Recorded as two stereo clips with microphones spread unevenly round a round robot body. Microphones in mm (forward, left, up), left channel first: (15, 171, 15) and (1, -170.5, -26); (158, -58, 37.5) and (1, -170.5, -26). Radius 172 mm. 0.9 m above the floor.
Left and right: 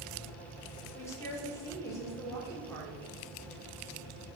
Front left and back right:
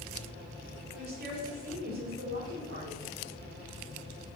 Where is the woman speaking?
175° left, 3 m.